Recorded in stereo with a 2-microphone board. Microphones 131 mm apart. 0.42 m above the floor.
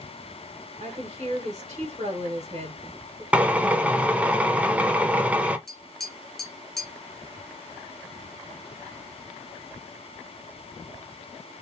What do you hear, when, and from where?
0.8 s a woman speaking: 55° right (ahead or behind), 1.7 m
3.3 s a drill: 10° right (ahead or behind), 0.5 m
5.7 s tapping: 5° left (ahead or behind), 0.9 m